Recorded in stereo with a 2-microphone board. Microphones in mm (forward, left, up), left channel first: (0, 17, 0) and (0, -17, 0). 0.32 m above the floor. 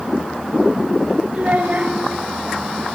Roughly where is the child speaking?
Right.